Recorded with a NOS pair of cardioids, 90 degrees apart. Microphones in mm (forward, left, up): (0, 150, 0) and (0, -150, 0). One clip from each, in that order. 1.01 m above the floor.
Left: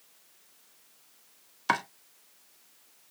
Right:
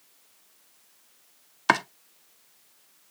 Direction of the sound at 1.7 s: 35° right.